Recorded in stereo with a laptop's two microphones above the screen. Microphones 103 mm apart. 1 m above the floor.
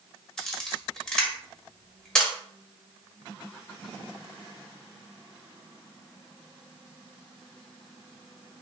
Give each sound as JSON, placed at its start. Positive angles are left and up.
{"t": 0.4, "sound": "a camera shutter", "side_deg": 5, "distance_m": 0.9}